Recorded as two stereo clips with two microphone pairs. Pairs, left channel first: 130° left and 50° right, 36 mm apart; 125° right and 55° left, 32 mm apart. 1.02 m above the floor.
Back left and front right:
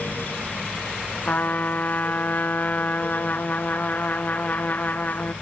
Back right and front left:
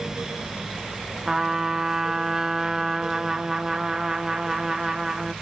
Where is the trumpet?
130° left, 0.6 m.